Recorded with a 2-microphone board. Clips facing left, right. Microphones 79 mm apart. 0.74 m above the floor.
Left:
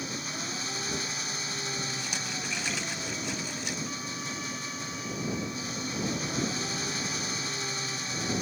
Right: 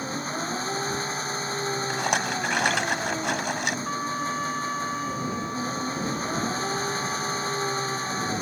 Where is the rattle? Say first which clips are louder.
Right 11 dB; 70° right (ahead or behind).